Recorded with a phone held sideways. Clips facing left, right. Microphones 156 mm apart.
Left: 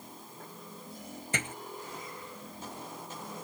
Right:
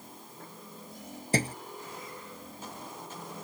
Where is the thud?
35° right (ahead or behind).